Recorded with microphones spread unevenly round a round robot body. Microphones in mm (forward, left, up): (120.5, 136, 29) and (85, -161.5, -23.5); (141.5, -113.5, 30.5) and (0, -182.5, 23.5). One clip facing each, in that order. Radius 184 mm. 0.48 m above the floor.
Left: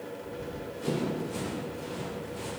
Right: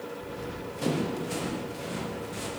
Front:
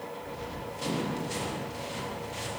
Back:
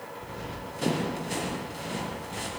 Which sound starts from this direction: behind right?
Running footsteps, at 0.2 s.